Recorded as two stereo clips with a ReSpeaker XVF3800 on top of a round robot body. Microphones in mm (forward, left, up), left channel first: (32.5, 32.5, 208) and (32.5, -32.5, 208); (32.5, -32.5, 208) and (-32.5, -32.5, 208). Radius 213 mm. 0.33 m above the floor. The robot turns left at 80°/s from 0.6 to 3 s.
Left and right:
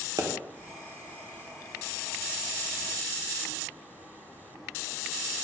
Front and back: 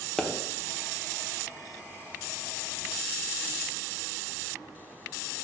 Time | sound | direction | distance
0.2 | a pop | 80° right | 1.3 m